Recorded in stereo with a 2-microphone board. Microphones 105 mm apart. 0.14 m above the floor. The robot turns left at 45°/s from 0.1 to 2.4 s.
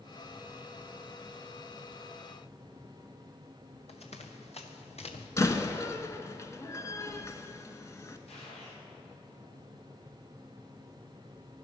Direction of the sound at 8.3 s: 90° left.